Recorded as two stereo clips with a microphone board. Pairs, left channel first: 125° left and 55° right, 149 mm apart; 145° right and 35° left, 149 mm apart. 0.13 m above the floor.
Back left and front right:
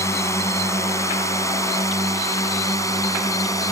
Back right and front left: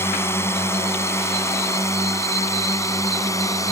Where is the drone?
165° left; by 3.7 s 170° left.